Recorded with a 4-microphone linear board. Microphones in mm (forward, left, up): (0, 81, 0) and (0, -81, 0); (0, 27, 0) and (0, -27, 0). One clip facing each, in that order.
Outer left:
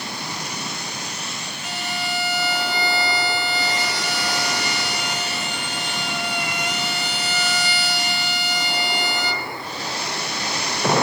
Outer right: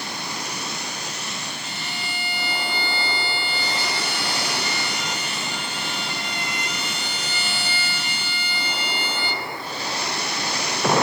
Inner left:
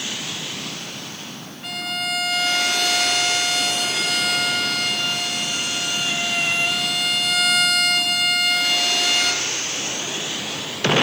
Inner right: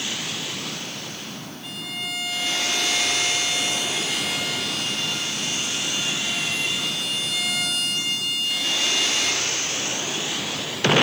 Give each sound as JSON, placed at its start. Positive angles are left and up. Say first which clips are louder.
{"t": 1.6, "sound": "a violin", "louder": "outer left 5 dB, inner left 7 dB", "side_deg": 70, "distance_m": 1.1}